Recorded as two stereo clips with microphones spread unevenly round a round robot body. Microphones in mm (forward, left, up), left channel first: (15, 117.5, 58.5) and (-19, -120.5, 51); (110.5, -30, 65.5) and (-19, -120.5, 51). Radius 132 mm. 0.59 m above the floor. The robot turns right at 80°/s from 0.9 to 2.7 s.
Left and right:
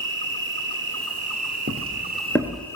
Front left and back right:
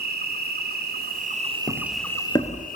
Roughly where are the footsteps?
Ahead right.